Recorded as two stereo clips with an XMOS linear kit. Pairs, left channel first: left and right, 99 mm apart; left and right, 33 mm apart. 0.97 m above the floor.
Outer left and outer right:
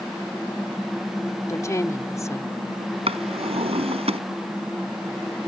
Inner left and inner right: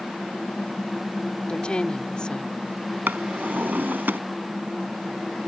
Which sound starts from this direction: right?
A drawer, at 3.1 s.